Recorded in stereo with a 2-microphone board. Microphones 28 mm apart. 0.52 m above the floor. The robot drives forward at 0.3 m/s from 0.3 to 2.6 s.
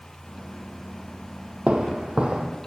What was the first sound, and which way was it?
Footsteps, 45° right (ahead or behind).